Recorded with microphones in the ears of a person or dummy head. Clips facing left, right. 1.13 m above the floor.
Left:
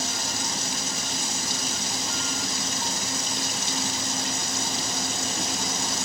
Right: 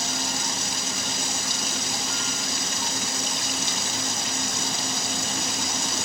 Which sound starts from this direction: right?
Running water, at 0.0 s.